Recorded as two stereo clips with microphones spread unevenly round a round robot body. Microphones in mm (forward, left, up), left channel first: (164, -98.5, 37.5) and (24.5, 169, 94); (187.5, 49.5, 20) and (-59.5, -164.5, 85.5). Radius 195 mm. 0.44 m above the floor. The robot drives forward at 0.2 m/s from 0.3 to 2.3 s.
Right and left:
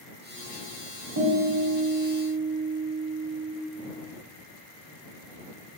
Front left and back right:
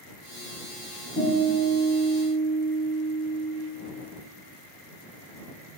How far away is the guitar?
About 0.6 m.